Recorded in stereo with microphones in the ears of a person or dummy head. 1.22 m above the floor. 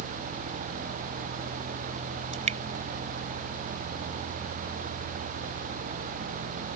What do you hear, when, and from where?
2.3 s dripping: 35° right (ahead or behind)